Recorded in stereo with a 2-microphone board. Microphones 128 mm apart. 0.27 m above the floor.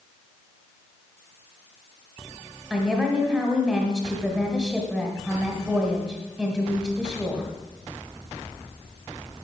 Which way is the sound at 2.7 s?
5° right (ahead or behind).